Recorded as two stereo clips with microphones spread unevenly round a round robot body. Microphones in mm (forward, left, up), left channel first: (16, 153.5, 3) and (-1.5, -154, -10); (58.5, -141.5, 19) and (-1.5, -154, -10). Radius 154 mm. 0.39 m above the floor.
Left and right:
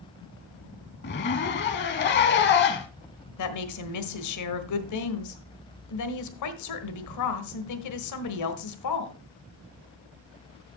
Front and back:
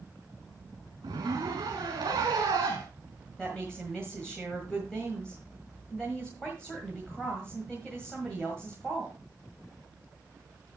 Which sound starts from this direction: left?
A woman speaking, at 3.4 s.